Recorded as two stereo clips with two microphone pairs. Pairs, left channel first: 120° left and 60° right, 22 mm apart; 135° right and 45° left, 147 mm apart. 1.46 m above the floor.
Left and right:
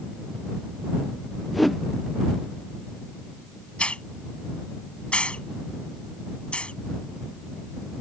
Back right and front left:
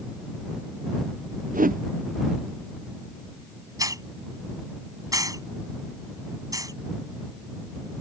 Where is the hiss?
110° left.